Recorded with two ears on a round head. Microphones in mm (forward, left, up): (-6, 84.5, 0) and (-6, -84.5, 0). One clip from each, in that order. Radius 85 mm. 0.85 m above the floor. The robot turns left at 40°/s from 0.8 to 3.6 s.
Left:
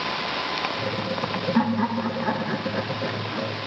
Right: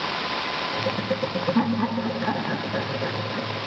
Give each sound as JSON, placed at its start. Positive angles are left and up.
{"t": 1.6, "sound": "laughter", "azimuth_deg": 50, "distance_m": 0.6}